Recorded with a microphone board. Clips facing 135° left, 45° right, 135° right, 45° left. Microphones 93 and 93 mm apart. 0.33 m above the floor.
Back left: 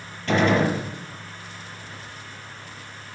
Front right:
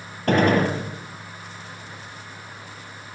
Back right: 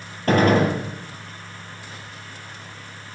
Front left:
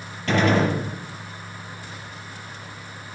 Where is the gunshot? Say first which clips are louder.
Front right 1 dB, back right 3 dB; 90° right, 6.5 m.